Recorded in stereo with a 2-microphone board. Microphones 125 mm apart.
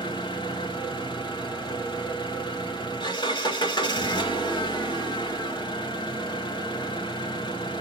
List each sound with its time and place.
0.0 s an engine running: 40° left (ahead or behind), 1.8 m